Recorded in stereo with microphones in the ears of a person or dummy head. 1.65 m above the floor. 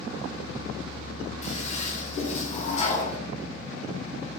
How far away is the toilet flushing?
About 0.6 m.